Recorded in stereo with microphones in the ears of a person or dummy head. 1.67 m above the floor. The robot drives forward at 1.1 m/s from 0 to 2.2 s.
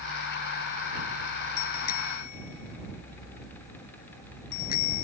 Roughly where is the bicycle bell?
Left.